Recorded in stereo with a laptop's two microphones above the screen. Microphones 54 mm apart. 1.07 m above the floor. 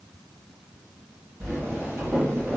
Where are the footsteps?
50° right (ahead or behind), 1.8 m.